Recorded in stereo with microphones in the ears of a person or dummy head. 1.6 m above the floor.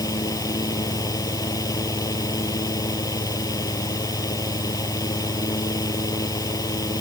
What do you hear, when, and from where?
0.0 s a fan: 15° left (ahead or behind)